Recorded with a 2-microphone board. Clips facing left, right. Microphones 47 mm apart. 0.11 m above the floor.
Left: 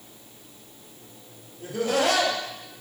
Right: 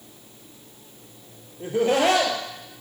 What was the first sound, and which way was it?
Laughter, 35° right (ahead or behind).